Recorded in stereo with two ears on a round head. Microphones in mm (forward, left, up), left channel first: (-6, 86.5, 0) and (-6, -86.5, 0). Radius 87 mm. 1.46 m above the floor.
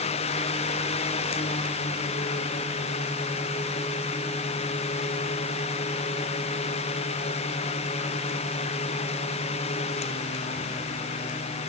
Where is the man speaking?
I don't hear a man speaking.